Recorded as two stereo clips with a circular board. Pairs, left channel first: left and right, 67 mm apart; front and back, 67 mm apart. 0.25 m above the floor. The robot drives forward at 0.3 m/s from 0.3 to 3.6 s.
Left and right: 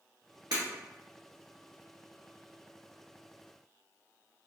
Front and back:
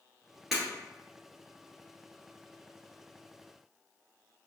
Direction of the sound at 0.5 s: 90° right.